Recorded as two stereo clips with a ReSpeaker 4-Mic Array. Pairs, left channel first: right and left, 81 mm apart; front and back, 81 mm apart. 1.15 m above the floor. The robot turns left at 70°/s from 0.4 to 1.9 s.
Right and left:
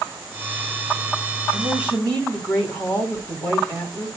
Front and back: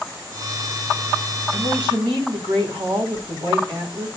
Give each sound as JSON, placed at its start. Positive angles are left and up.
{"t": 1.5, "sound": "a man speaking", "azimuth_deg": -135, "distance_m": 4.5}